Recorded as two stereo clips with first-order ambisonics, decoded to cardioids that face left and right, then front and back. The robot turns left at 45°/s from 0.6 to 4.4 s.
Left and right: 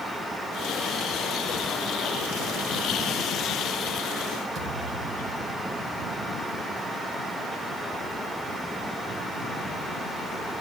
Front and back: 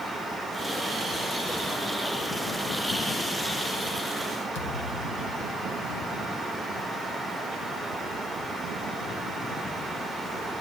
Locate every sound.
4.5 s a thud: 25° right, 4.5 m